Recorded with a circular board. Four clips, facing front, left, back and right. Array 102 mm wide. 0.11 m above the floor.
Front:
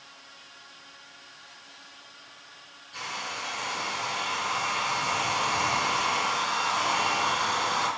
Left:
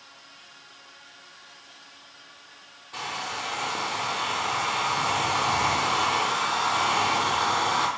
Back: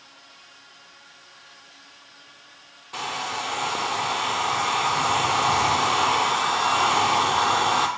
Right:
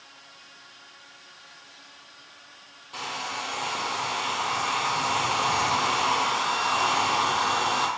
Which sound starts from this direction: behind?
A hair dryer, at 2.9 s.